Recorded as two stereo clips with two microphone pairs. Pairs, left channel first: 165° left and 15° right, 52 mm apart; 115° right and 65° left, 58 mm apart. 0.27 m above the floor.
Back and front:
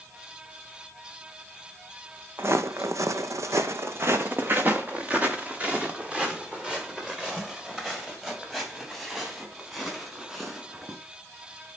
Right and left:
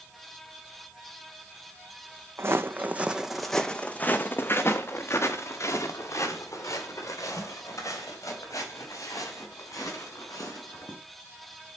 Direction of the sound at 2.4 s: 25° left.